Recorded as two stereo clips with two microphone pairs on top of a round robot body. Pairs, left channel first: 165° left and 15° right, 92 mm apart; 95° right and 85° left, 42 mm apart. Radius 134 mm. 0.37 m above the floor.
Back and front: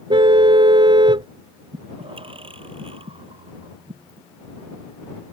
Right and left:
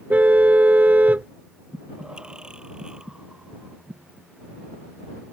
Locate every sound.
0.1 s a car horn: 25° left
1.7 s breathing: 10° left